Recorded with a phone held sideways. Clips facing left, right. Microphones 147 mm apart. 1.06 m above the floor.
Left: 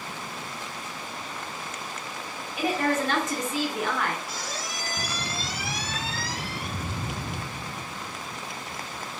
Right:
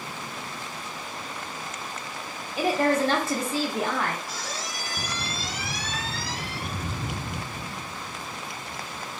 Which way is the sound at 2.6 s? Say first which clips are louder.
Right 3 dB; 35° right (ahead or behind).